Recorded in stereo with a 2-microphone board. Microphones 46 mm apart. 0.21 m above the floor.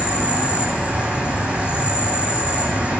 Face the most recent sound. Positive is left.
turn(degrees=-25)  # may be behind; listen again after turning